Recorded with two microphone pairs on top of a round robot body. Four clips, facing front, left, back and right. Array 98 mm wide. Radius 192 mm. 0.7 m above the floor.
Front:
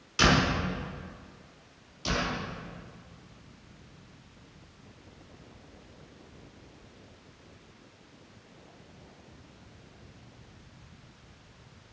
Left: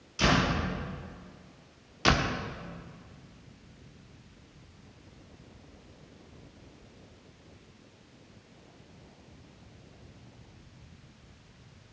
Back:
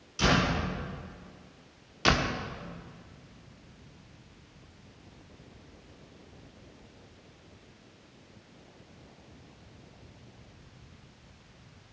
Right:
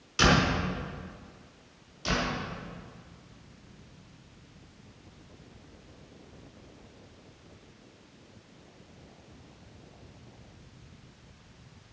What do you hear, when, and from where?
0.2 s a door slam: 45° right, 6 m
2.0 s a door slam: 135° left, 1.2 m